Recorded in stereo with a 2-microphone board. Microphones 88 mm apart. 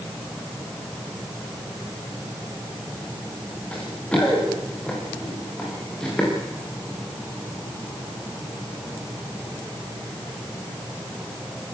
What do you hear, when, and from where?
3.7 s running footsteps: 10° left (ahead or behind), 8.5 m; by 6.3 s 5° left (ahead or behind), 12.5 m